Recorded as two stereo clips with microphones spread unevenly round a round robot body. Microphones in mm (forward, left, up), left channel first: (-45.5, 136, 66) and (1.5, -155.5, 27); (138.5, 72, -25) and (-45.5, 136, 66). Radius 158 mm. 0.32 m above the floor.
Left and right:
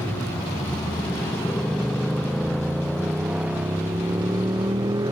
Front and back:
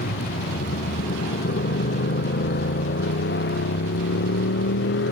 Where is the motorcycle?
15° left; by 5.1 s straight ahead.